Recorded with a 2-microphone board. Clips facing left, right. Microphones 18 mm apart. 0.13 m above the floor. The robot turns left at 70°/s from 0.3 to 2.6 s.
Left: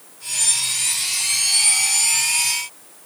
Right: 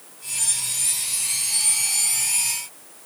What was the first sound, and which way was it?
Only background noise.